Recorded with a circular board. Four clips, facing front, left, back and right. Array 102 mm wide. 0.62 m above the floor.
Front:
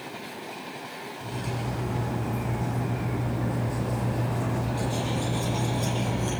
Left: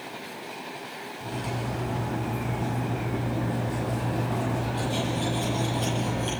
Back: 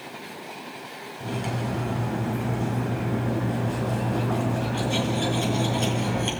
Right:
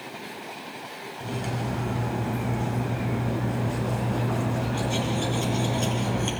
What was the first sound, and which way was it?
Cutlery clinking, 155° right.